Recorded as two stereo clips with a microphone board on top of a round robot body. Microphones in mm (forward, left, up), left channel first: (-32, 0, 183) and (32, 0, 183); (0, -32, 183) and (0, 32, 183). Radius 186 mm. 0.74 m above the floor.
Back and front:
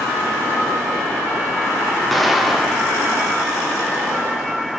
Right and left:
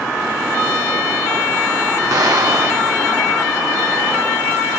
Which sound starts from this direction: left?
An explosion, at 2.1 s.